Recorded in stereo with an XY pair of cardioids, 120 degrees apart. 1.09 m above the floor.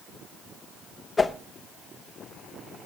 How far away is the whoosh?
About 0.8 m.